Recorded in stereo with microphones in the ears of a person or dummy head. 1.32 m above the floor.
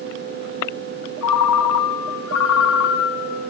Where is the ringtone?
75° left (ahead or behind), 2.5 m.